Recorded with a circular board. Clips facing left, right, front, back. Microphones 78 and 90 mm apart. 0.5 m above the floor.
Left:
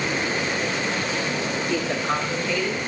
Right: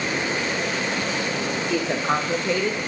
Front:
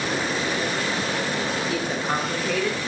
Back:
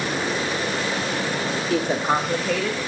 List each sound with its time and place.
1.7 s a woman speaking: 165° right, 1.1 m; by 2.8 s 80° right, 1.3 m